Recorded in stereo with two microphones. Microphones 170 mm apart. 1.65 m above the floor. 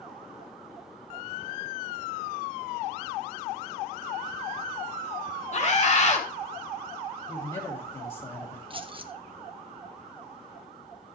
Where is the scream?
45° left (ahead or behind), 2.5 m.